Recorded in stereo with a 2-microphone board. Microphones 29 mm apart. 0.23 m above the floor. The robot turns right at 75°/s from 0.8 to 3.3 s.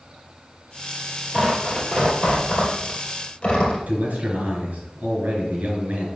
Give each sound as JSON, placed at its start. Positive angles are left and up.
{"t": 1.3, "sound": "tearing paper", "side_deg": -10, "distance_m": 2.5}
{"t": 3.9, "sound": "a man speaking", "side_deg": -60, "distance_m": 3.5}